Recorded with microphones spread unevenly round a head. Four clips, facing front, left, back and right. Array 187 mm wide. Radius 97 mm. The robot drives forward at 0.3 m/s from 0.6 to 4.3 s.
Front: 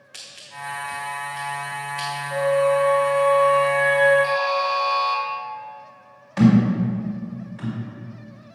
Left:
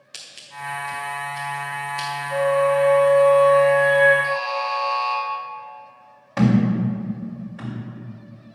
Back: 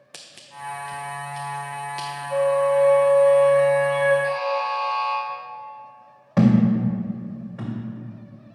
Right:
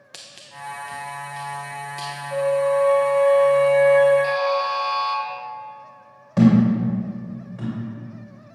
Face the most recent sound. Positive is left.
turn(degrees=-165)